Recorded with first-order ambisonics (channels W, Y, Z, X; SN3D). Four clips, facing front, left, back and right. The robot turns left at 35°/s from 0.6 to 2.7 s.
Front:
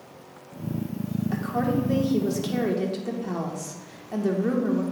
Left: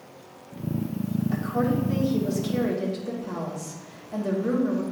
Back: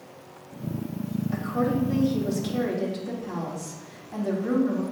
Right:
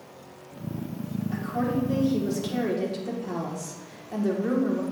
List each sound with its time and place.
1.3 s a woman speaking: 25° left, 1.5 m; by 4.8 s 25° right, 1.5 m